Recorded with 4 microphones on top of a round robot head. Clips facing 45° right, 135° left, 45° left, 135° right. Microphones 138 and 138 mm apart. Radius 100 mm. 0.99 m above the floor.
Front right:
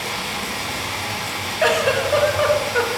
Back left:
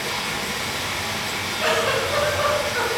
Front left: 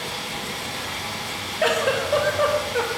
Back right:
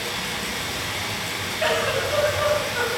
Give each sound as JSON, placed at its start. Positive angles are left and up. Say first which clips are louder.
{"t": 0.0, "sound": "running water", "louder": "front right 1 dB, back right 1 dB", "azimuth_deg": -110, "distance_m": 4.5}
{"t": 1.6, "sound": "a giggle", "louder": "front right 4 dB, front left 2 dB", "azimuth_deg": -10, "distance_m": 2.0}